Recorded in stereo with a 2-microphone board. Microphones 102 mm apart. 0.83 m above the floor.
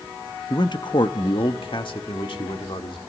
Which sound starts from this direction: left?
A man speaking, at 0.5 s.